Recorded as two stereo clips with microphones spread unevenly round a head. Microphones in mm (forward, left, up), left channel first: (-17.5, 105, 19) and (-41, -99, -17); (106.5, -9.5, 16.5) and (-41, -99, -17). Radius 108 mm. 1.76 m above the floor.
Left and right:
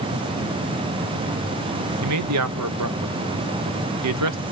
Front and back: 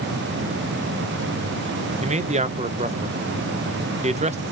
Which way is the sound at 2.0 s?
95° right.